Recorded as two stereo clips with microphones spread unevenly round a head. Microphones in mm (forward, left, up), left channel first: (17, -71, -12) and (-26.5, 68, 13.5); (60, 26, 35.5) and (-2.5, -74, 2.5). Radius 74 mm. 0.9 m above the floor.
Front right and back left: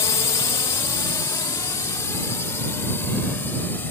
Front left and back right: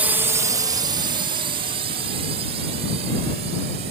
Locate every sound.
0.0 s a drone: 100° right; by 3.9 s 150° right